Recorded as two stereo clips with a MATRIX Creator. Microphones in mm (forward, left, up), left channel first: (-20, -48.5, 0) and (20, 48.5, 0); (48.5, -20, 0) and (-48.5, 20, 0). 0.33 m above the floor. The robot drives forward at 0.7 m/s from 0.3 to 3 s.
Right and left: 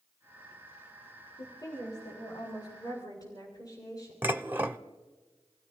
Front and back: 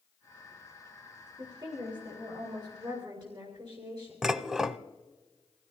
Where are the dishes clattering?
85° left, 0.6 m.